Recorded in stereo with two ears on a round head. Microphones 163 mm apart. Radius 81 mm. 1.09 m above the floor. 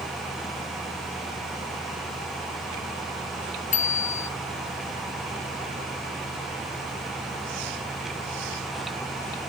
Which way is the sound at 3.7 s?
45° left (ahead or behind).